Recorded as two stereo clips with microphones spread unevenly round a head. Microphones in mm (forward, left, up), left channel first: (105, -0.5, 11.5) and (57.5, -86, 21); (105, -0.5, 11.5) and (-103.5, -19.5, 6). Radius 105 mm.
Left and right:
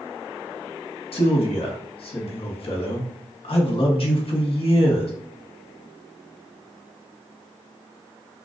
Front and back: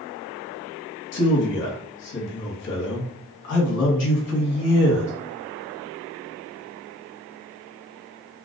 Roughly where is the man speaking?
Ahead left.